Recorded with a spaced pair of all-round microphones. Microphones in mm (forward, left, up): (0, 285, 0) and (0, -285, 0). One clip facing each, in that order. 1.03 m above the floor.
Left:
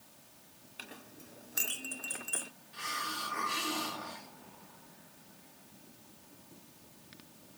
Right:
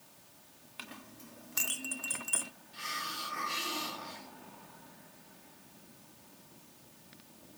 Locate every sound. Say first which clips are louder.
0.8 s a clink: right 1 dB; 30° right (ahead or behind), 0.6 m
2.7 s a hiss: left 4 dB; 70° left (ahead or behind), 1.6 m